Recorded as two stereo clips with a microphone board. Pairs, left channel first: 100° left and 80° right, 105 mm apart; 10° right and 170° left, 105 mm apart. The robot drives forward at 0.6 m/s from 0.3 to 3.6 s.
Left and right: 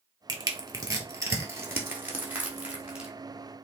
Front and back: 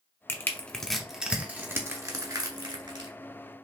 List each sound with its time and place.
0.3 s crushing: 60° right, 1.1 m; by 3.1 s 155° right, 1.7 m